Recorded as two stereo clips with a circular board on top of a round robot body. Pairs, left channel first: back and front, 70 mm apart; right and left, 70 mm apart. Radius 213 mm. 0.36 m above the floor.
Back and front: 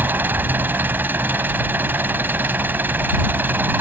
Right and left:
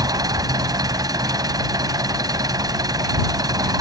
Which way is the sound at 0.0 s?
65° left.